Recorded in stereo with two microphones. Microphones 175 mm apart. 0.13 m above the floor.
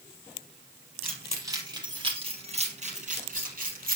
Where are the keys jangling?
10° right (ahead or behind), 3 m; by 4.0 s 60° right (ahead or behind), 3.5 m.